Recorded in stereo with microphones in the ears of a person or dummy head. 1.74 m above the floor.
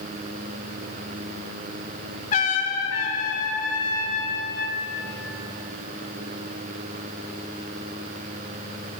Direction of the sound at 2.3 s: 40° left (ahead or behind).